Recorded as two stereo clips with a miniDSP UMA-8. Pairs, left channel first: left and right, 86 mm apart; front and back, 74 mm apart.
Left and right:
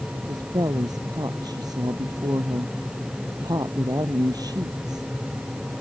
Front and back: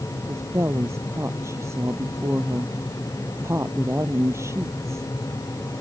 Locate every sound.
0.1 s a woman speaking: 130° right